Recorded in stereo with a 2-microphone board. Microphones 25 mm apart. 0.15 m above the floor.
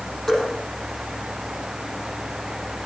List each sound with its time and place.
0.3 s dripping: 35° left (ahead or behind), 6 m